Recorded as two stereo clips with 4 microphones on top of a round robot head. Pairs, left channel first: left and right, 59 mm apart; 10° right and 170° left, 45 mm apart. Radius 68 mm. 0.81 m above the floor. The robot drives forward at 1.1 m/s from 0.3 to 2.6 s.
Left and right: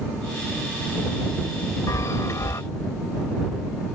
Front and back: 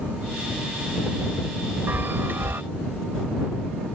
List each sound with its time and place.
1.9 s a chime: 125° left; by 2.6 s 130° left